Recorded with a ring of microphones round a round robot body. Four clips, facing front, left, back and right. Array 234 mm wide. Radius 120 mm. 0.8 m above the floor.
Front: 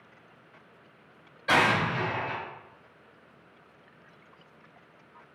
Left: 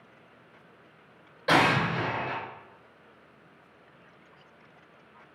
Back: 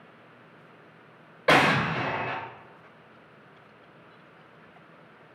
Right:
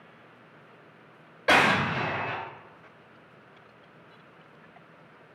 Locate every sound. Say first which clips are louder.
1.5 s an explosion: right 1 dB, back 3 dB; 165° right, 1.2 m